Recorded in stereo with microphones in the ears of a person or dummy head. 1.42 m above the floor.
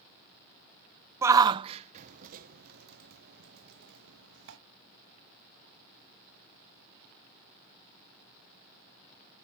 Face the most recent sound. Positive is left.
turn(degrees=-65)  # may be behind; listen again after turning